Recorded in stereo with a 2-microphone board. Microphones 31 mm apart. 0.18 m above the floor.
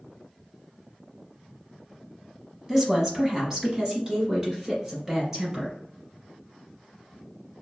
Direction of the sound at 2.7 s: 15° right (ahead or behind).